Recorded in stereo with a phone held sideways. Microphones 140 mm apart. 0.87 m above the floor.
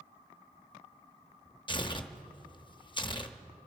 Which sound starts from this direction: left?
Tearing paper, at 1.7 s.